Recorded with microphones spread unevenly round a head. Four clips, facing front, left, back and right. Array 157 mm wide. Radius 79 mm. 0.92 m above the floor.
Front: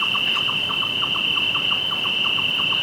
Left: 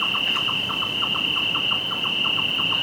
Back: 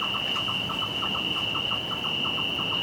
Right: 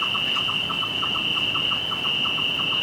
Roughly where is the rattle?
No rattle in this recording.